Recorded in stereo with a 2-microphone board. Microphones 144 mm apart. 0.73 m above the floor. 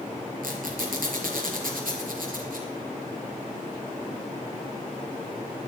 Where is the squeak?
85° right, 4 m.